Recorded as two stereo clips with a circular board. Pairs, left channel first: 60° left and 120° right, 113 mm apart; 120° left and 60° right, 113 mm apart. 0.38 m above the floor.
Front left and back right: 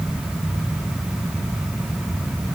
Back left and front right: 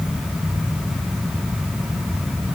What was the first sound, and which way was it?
Only background noise.